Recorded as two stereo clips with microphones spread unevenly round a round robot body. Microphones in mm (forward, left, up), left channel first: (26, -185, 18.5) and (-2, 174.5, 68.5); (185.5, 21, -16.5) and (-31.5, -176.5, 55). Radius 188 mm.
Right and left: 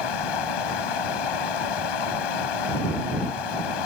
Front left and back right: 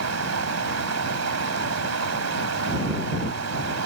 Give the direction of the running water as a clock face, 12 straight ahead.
3 o'clock.